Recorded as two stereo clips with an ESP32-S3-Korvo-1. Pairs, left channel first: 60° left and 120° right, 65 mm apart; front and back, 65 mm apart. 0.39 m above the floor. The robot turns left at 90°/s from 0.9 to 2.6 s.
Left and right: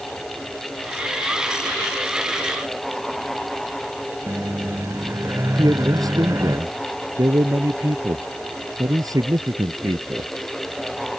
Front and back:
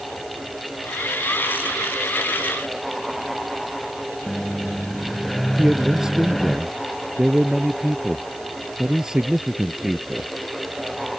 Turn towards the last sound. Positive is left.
turn(degrees=-100)